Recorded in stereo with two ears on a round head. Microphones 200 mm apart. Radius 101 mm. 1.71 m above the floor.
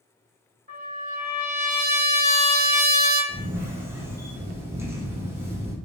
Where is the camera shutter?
10° right (ahead or behind), 0.6 m.